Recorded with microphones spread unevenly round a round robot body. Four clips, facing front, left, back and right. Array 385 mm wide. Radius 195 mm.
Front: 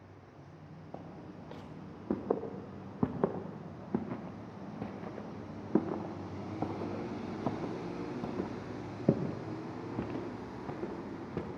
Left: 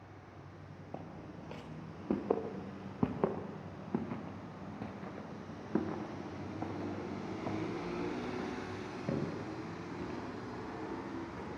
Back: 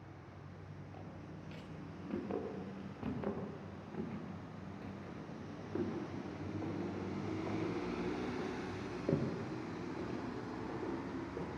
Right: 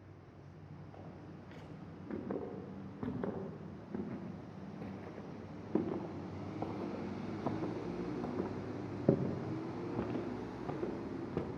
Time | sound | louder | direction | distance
0.9 | footsteps | left 6 dB, front 6 dB | 50° left | 6 m